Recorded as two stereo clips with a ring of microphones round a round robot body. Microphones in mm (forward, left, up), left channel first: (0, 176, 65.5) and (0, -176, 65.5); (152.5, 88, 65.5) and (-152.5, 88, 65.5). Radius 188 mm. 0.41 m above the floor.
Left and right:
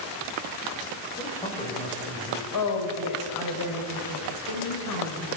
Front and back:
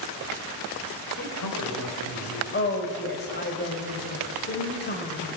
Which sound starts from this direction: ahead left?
A woman speaking, at 2.5 s.